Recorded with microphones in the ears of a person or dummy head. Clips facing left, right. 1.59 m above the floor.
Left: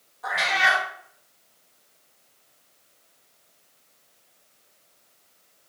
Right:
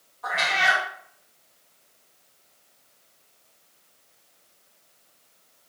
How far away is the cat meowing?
About 1.8 m.